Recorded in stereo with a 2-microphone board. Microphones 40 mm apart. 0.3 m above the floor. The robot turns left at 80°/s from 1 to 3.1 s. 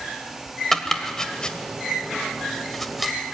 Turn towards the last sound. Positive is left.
turn(degrees=-5)  # may be behind; listen again after turning